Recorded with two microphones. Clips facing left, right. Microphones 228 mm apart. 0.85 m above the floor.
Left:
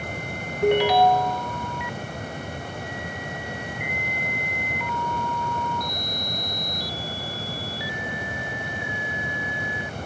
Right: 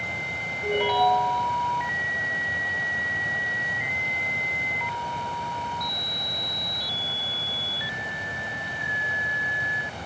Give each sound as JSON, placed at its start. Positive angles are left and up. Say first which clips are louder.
{"t": 0.6, "sound": "a ringtone", "louder": "left 6 dB", "side_deg": 80, "distance_m": 1.2}